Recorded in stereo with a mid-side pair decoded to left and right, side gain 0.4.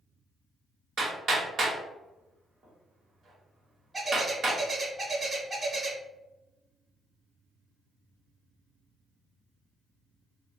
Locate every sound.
1.0 s hammering: 60° right, 1.7 m
3.9 s a bird: 30° right, 1.7 m